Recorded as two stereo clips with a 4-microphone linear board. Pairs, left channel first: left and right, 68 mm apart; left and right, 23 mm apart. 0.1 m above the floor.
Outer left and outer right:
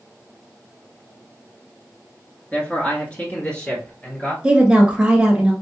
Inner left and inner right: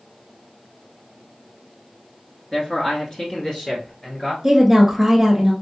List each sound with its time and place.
2.5 s a man speaking: 25° left (ahead or behind), 1.6 m; by 4.3 s 20° left (ahead or behind), 1.7 m
4.4 s a woman speaking: 15° right (ahead or behind), 1.4 m